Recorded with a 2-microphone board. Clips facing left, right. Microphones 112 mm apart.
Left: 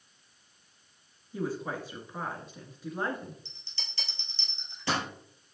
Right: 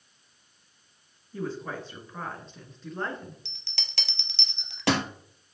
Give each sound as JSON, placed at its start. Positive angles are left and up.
{"t": 1.3, "sound": "a woman speaking", "side_deg": 10, "distance_m": 1.9}
{"t": 3.5, "sound": "a bell", "side_deg": -80, "distance_m": 0.8}